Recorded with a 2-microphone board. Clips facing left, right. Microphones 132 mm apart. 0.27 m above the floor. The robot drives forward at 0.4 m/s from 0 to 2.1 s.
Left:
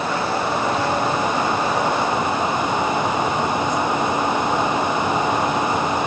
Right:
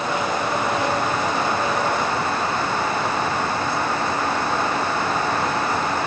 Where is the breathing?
No breathing in this recording.